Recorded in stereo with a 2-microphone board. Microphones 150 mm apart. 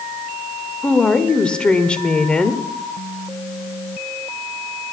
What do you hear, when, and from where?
0.8 s a woman speaking: 5° left (ahead or behind), 1.0 m